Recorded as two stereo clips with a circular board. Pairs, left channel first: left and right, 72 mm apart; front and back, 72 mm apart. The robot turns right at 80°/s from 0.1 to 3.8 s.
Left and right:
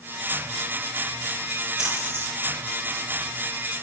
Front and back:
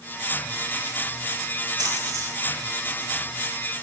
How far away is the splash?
About 3 m.